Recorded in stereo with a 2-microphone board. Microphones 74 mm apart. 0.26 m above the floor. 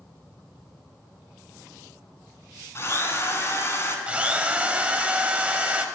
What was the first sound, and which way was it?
A drill, 40° left (ahead or behind).